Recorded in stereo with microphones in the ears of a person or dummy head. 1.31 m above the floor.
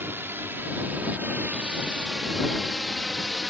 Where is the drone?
10° right (ahead or behind); by 3.5 s 5° left (ahead or behind).